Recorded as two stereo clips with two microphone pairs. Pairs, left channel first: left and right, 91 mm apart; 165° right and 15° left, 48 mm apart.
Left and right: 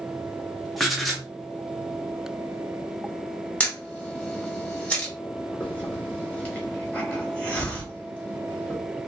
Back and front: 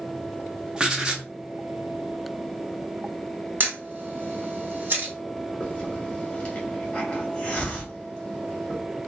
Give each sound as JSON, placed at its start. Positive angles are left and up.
{"t": 0.8, "sound": "writing", "azimuth_deg": 10, "distance_m": 0.7}
{"t": 3.6, "sound": "a camera shutter", "azimuth_deg": 25, "distance_m": 1.1}
{"t": 5.6, "sound": "a hiss", "azimuth_deg": 150, "distance_m": 1.2}